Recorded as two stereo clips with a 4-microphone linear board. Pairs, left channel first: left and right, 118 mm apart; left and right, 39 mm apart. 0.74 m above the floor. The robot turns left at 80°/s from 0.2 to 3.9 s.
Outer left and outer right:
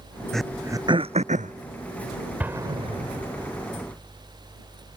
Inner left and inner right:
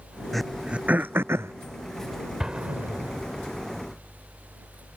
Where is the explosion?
10° right (ahead or behind); by 3.5 s 75° right (ahead or behind).